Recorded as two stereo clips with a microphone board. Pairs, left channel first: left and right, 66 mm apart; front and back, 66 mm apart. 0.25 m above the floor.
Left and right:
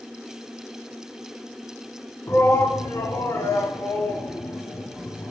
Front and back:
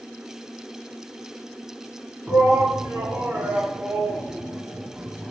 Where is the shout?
115° left, 2 m.